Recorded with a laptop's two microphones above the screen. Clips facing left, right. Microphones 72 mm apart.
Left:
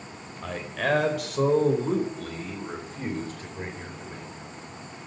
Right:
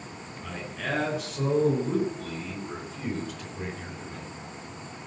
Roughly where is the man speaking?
Left.